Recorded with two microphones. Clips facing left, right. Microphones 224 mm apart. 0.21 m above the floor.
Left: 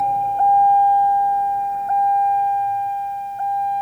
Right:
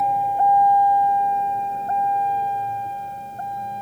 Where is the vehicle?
5° right (ahead or behind); by 3.8 s 50° right (ahead or behind).